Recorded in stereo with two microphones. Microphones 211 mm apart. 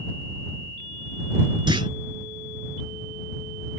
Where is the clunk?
25° right (ahead or behind).